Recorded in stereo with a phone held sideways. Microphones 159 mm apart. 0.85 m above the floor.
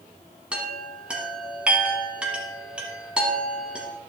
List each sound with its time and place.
0.5 s a chime: 5° right (ahead or behind), 1.9 m